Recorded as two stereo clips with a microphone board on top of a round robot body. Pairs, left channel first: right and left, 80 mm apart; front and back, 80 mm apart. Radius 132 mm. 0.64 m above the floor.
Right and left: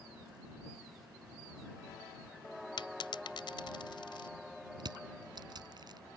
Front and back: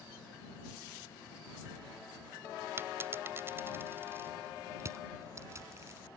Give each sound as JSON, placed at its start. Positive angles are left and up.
{"t": 2.8, "sound": "a dropped coin", "azimuth_deg": -115}
{"t": 4.8, "sound": "crushing", "azimuth_deg": 125}